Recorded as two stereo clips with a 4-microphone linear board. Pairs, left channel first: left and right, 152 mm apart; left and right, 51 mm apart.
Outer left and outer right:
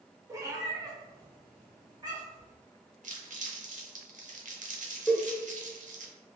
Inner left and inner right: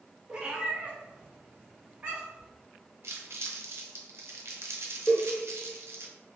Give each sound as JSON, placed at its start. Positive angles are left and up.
{"t": 0.3, "sound": "a cat meowing", "side_deg": -20, "distance_m": 0.6}
{"t": 3.0, "sound": "crumpling", "side_deg": -55, "distance_m": 0.6}
{"t": 5.1, "sound": "a cowbell", "side_deg": 10, "distance_m": 0.7}